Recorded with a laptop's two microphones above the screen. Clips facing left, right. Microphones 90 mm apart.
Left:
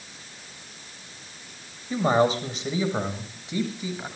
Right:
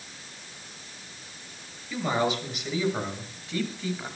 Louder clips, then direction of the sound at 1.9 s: Left 6 dB; 40° left (ahead or behind).